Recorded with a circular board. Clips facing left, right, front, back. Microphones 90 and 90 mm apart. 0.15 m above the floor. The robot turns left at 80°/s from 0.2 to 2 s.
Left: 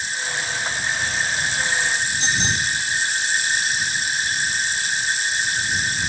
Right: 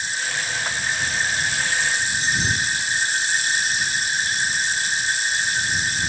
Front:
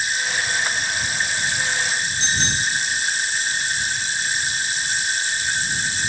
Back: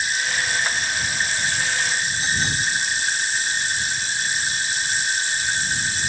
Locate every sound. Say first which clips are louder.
2.2 s a bicycle bell: even, front 1 dB; 100° left